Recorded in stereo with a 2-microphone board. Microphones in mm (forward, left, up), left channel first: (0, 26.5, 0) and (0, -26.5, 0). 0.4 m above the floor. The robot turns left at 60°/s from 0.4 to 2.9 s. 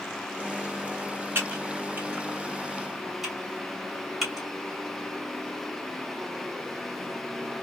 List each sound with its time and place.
1.4 s typing on a keyboard: 40° right (ahead or behind), 1.9 m; by 4.5 s 10° right (ahead or behind), 1.9 m